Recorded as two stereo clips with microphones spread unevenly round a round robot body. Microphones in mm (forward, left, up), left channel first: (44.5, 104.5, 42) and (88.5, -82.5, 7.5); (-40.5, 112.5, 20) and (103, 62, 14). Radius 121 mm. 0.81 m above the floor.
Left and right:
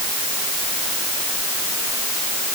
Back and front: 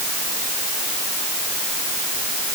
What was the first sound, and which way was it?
Only background noise.